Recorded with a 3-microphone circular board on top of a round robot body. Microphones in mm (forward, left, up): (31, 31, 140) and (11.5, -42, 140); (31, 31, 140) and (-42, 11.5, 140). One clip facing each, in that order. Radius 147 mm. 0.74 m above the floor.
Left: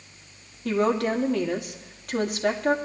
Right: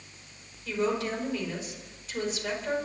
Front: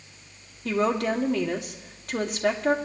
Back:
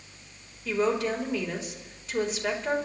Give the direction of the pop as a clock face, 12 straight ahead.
I don't hear a pop.